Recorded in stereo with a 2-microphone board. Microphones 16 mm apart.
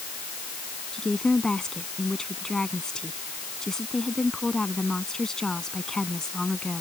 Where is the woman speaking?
45° left (ahead or behind).